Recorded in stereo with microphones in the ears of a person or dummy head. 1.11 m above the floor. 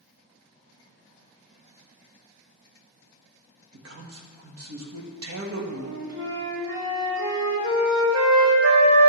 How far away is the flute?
About 2 m.